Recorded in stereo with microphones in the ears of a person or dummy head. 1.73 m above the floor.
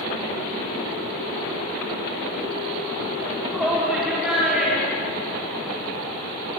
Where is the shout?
5° right (ahead or behind), 3.5 m.